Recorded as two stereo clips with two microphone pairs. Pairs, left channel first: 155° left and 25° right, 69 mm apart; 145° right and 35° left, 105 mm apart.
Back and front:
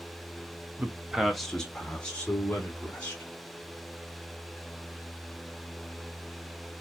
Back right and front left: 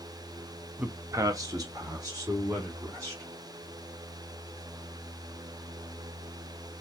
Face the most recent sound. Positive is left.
turn(degrees=90)